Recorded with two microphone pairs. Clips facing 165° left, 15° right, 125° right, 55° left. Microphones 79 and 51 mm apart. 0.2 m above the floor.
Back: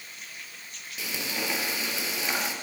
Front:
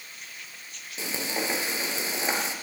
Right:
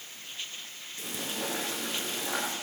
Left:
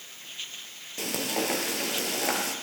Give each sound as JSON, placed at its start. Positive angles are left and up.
{"t": 1.0, "sound": "frying", "azimuth_deg": 40, "distance_m": 4.5}